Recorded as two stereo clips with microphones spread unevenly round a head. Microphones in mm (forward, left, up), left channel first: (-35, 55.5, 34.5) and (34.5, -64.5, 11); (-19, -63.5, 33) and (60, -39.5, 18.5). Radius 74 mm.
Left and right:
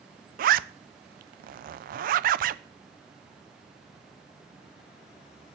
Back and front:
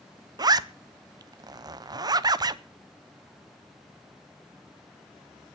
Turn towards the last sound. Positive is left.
turn(degrees=-25)